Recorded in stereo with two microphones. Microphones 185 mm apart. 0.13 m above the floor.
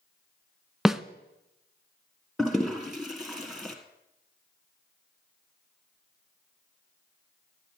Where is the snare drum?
Centre (ahead or behind), 0.5 m.